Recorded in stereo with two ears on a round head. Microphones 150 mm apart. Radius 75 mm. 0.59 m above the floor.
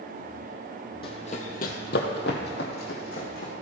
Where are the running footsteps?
30° left (ahead or behind), 1.4 m; by 3.5 s 55° left (ahead or behind), 2.5 m.